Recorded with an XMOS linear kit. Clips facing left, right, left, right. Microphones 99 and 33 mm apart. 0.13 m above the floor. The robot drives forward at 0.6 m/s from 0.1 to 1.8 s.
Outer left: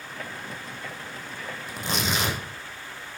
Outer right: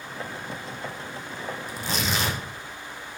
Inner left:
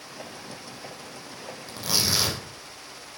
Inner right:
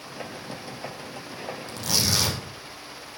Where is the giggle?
No giggle in this recording.